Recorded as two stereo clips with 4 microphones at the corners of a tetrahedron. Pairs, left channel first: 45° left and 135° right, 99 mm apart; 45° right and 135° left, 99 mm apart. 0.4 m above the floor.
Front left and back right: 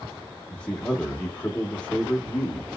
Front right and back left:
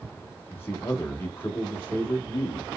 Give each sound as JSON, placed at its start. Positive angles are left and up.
{"t": 0.5, "sound": "a man speaking", "azimuth_deg": -20, "distance_m": 0.8}